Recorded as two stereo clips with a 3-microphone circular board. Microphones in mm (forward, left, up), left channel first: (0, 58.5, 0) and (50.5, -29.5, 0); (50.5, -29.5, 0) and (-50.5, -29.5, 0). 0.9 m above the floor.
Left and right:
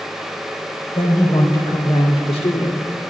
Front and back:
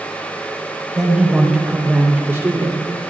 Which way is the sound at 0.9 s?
90° left.